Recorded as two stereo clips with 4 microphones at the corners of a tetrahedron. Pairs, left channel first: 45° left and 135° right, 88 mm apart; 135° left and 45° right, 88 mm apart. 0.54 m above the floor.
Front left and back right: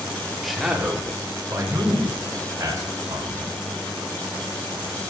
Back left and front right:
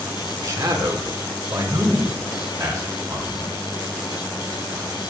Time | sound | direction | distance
0.4 | a man speaking | 40° right | 1.1 m